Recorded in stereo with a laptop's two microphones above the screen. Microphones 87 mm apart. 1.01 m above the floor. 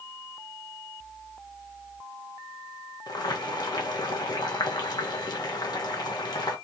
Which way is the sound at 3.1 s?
50° left (ahead or behind).